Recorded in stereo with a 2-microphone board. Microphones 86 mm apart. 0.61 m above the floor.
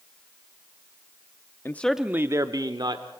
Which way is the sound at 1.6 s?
30° left (ahead or behind).